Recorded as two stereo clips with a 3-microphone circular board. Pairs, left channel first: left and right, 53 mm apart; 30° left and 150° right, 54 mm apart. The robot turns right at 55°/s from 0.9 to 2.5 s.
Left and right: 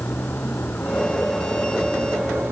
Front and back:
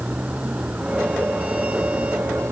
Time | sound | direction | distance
0.0 | a vehicle | 145° left | ?